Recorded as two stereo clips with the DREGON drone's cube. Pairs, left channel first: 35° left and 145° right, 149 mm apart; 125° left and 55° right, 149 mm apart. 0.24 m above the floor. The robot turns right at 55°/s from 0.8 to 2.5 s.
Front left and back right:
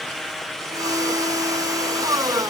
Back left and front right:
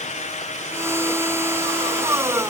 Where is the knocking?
I don't hear knocking.